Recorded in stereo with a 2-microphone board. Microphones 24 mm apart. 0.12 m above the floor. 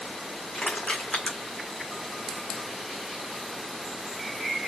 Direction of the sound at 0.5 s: 80° left.